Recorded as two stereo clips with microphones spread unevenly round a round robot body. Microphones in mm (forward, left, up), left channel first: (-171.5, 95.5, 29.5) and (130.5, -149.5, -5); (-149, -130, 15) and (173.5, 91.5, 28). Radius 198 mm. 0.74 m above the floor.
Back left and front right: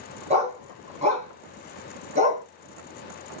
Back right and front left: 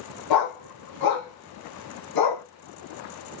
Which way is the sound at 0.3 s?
115° right.